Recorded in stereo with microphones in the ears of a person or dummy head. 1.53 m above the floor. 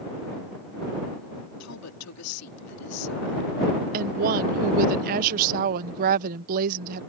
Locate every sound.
1.6 s a woman speaking: 90° left
3.9 s a woman speaking: 45° right (ahead or behind)